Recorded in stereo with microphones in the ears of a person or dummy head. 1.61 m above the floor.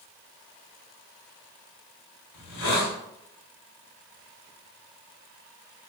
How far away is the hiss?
About 1.0 m.